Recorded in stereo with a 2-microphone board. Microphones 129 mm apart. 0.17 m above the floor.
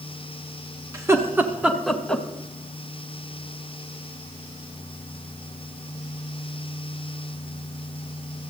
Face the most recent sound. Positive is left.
turn(degrees=10)  # may be behind; listen again after turning